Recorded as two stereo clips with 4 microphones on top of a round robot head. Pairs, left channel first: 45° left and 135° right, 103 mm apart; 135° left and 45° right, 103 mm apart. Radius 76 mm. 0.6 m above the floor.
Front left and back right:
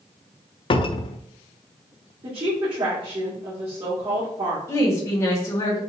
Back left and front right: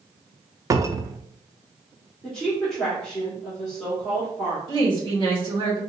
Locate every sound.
0.7 s a cupboard door: 15° left, 0.5 m
2.2 s a woman speaking: 140° right, 1.7 m
4.7 s a woman speaking: 15° right, 2.5 m